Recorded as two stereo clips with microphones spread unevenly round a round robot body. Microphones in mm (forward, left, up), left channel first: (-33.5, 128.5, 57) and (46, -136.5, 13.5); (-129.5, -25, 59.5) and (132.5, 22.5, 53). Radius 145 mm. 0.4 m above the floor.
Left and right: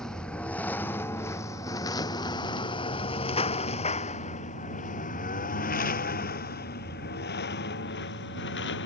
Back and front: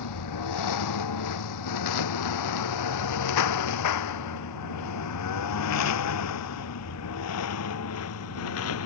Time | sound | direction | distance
0.0 | a lawn mower | 165° right | ?